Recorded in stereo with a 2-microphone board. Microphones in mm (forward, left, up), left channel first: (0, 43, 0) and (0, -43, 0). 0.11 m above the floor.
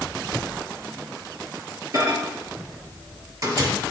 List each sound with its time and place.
1.9 s a microwave: 45° right (ahead or behind), 2 m